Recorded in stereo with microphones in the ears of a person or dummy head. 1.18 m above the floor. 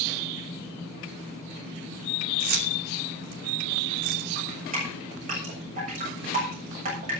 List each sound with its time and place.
2.4 s keys jangling: 50° right (ahead or behind), 2.5 m
4.3 s dripping: 45° right (ahead or behind), 7 m